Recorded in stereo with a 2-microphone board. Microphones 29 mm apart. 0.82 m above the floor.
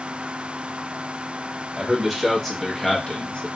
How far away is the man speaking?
About 1.7 m.